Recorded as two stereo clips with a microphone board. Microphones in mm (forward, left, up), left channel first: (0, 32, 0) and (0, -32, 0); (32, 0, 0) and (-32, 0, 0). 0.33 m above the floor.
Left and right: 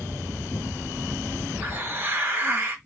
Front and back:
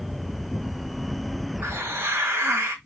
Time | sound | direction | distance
1.6 | a hiss | 145° right | 1.5 m